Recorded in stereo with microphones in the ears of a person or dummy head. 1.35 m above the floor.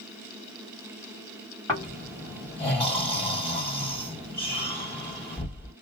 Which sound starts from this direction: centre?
Snoring, at 1.7 s.